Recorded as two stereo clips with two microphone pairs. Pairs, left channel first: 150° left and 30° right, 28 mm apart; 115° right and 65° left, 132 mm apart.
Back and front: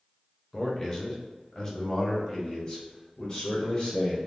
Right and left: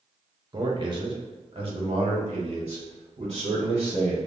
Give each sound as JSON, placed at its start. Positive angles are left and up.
{"t": 0.5, "sound": "a man speaking", "azimuth_deg": 95, "distance_m": 0.9}